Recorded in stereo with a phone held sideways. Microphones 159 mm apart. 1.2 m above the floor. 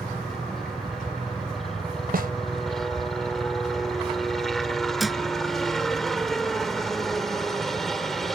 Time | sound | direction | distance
0.0 | a helicopter | centre (ahead or behind) | ?
2.1 | a snare drum | 70° right (ahead or behind) | ?
5.0 | a thud | centre (ahead or behind) | ?